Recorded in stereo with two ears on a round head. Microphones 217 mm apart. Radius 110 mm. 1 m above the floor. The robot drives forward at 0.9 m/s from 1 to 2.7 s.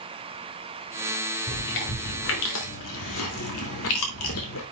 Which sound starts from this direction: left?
Chewing, at 1.5 s.